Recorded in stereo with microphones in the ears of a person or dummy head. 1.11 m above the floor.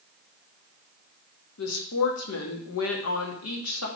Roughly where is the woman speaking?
Left.